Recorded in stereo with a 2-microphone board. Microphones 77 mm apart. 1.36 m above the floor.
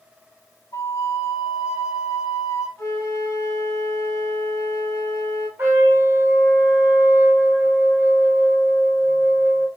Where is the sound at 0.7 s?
40° left (ahead or behind), 0.8 m.